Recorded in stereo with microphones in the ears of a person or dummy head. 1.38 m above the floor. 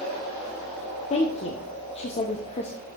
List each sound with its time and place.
1.1 s a woman speaking: 35° left (ahead or behind), 0.6 m